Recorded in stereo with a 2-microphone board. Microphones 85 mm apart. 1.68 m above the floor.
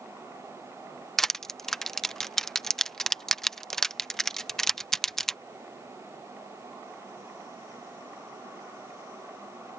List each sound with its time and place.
1.2 s crushing: 5° left (ahead or behind)